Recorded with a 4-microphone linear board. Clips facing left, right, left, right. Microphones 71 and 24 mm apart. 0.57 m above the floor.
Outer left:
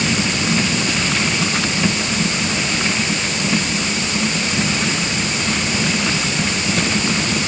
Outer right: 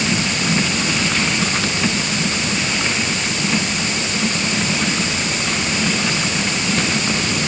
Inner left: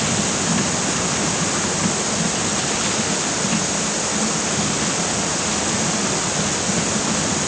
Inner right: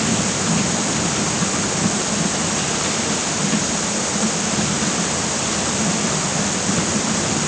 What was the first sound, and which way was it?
Only background noise.